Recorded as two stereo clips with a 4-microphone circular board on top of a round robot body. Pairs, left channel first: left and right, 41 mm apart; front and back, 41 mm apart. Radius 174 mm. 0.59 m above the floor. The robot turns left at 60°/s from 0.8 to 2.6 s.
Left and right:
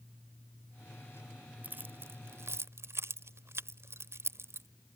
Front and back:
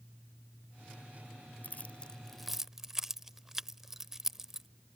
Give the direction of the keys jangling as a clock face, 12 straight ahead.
1 o'clock.